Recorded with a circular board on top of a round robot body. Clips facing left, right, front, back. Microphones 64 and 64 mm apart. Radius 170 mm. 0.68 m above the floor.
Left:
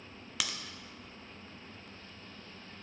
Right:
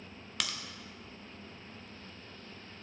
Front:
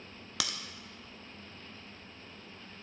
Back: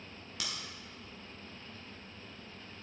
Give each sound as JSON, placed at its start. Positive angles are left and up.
{"t": 0.4, "sound": "a crack", "azimuth_deg": 5, "distance_m": 0.6}